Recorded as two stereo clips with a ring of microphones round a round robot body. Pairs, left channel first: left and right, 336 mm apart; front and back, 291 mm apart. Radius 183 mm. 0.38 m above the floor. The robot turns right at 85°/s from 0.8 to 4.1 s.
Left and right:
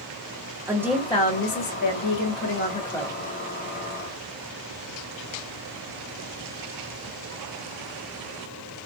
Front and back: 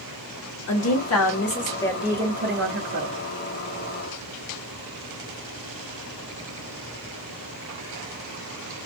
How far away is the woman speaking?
About 1.4 m.